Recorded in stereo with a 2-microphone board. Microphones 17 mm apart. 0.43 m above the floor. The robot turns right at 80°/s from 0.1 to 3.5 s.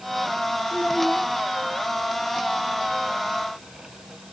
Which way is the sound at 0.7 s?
5° right.